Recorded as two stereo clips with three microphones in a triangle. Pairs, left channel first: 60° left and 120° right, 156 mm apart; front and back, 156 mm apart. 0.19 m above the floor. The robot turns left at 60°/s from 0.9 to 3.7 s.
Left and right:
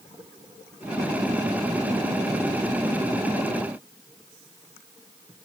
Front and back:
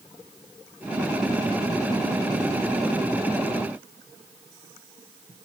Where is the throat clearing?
I don't hear throat clearing.